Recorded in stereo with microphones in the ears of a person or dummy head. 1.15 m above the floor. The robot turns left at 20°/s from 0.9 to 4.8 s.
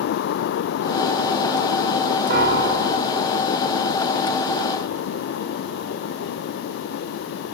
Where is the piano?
55° right (ahead or behind), 0.7 m; by 3.2 s 65° right (ahead or behind), 0.7 m.